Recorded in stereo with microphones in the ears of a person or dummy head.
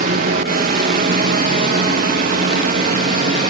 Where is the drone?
50° right (ahead or behind); by 3.5 s 45° right (ahead or behind).